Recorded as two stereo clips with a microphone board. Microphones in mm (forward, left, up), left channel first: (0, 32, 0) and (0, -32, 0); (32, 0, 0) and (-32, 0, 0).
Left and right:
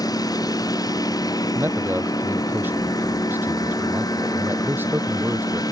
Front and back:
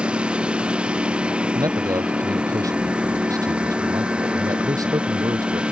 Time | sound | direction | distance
0.0 | a lawn mower | 105° left | ?
1.6 | a man speaking | 150° right | ?